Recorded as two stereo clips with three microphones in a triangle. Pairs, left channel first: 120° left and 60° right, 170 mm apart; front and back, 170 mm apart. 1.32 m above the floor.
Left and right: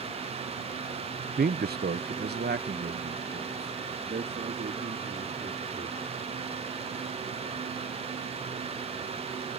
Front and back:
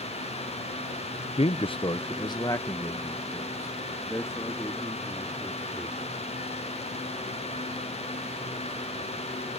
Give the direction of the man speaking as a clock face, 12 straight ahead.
2 o'clock.